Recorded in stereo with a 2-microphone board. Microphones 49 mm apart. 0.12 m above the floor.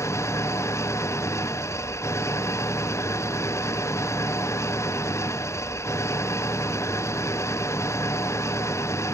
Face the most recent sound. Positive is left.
turn(degrees=80)